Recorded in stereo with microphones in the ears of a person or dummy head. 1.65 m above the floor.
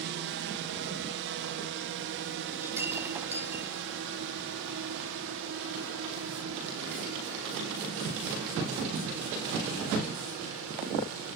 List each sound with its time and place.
0.0 s a drone: 60° right (ahead or behind); by 11.3 s 75° right (ahead or behind)
2.6 s breaking glass: 10° right (ahead or behind)